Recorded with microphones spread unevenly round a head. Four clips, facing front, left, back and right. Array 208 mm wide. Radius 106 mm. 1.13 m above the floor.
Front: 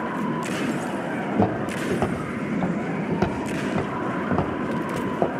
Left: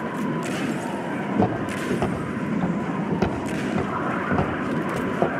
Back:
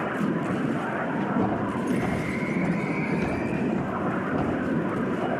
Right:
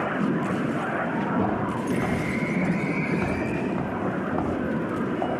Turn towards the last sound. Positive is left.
turn(degrees=50)